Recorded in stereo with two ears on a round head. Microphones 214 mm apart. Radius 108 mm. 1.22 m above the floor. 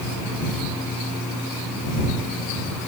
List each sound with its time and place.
Only background noise.